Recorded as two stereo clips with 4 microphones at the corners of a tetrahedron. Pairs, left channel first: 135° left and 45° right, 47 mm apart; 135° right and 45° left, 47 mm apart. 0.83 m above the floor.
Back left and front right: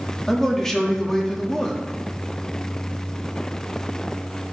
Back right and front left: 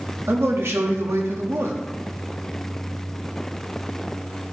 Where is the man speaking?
55° left, 2.0 m.